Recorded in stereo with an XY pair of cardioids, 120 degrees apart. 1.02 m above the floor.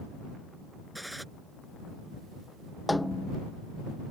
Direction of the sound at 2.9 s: 5° left.